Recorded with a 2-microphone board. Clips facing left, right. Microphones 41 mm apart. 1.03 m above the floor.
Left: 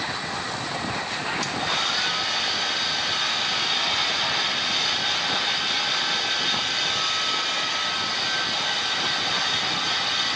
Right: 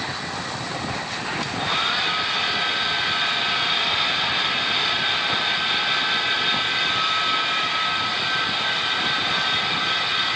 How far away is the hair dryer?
About 2 m.